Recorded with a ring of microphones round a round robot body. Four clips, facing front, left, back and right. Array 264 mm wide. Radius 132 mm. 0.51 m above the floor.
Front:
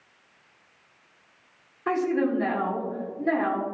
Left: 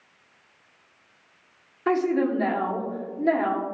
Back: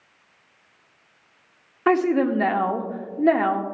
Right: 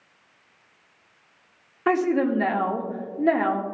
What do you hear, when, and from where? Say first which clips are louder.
1.9 s a woman speaking: right 1 dB, back 5 dB; 165° right, 1.0 m